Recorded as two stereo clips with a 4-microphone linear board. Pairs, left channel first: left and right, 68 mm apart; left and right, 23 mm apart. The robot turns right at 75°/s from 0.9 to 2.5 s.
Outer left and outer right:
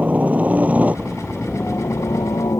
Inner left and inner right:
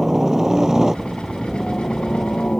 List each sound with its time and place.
0.0 s a helicopter: 25° right; by 2.6 s 95° left